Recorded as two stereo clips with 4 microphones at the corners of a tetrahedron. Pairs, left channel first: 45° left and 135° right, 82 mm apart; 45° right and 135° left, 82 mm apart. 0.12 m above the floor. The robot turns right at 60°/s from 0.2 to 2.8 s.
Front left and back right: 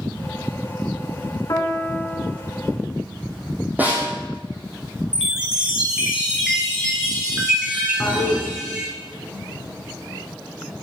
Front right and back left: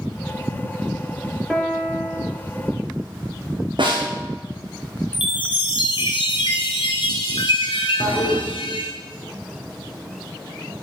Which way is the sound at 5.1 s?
55° right.